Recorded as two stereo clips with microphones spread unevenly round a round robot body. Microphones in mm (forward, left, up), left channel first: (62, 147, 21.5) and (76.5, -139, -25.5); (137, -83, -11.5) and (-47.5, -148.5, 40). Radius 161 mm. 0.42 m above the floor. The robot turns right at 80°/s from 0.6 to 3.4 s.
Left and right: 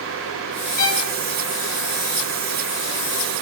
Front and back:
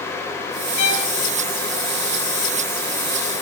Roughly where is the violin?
Ahead left.